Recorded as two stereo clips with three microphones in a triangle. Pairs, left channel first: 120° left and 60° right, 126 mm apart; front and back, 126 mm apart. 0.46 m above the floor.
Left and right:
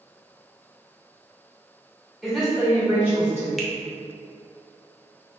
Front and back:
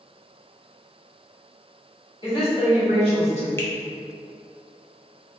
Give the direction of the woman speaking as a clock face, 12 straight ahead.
11 o'clock.